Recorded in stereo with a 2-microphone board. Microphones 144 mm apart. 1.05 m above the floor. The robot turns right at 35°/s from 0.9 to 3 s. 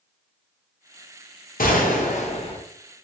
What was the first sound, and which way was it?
A gunshot, 105° left.